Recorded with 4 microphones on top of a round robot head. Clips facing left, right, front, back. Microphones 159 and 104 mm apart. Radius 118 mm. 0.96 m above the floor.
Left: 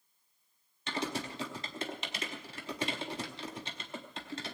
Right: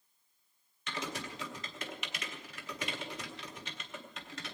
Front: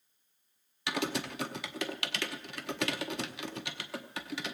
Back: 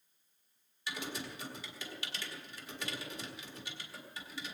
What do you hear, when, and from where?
0.9 s typing on a keyboard: 25° left, 0.8 m